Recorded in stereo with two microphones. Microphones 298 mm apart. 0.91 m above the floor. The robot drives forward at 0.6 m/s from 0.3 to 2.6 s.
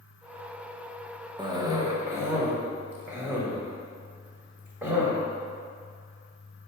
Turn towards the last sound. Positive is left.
turn(degrees=-5)  # may be behind; listen again after turning